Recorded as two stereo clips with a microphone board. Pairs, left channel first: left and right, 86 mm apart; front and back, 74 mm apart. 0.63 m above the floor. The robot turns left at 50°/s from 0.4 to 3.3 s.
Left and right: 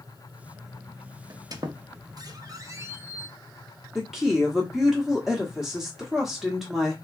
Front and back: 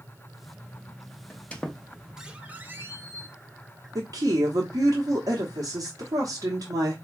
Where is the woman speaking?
175° right, 1.0 m.